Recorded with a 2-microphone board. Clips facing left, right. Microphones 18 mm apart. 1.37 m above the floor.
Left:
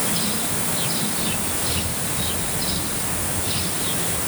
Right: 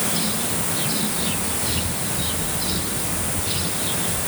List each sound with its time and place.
Only background noise.